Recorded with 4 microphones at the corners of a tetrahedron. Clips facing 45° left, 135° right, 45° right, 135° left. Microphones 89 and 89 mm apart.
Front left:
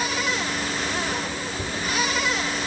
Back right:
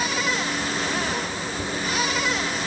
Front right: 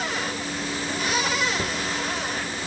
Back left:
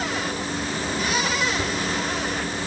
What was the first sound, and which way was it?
Only background noise.